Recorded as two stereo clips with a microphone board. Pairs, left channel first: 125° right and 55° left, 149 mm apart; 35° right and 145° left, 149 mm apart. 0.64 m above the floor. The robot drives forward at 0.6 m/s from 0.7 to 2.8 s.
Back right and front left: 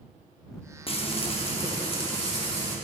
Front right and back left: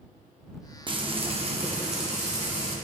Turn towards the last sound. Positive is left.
turn(degrees=-175)